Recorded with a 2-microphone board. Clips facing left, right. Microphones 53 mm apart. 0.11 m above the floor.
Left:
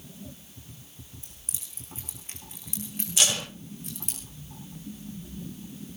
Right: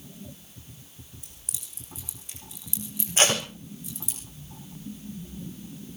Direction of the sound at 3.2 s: 35° right (ahead or behind).